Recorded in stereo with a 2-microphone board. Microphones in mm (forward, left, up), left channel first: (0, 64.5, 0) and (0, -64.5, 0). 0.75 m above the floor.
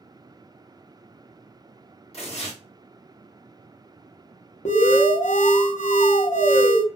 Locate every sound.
2.1 s tearing paper: 50° left (ahead or behind), 1.4 m
4.7 s an alarm: 65° left (ahead or behind), 0.6 m